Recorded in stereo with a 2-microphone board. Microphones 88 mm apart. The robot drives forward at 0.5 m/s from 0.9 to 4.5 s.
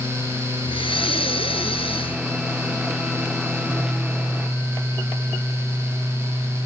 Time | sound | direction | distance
0.7 | breathing | 75° left (ahead or behind) | 1.5 m